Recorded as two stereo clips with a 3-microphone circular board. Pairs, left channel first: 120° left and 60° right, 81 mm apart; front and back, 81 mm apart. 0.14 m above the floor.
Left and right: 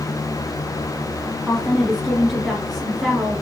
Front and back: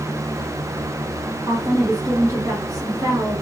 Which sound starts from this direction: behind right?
A woman speaking, at 1.5 s.